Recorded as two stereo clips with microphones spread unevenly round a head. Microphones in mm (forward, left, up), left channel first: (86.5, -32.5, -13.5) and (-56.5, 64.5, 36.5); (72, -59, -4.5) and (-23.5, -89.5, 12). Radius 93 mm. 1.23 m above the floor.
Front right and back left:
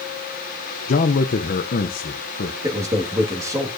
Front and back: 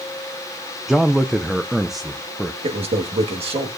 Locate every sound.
0.9 s a man speaking: 75° right, 0.5 m
2.6 s a man speaking: 140° right, 1.7 m